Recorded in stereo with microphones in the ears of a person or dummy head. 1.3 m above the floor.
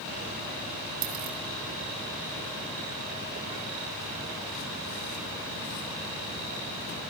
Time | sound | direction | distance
1.0 | a dropped coin | 50° right (ahead or behind) | 3 m